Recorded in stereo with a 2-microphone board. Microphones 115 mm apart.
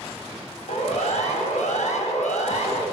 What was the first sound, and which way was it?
A siren, 75° left (ahead or behind).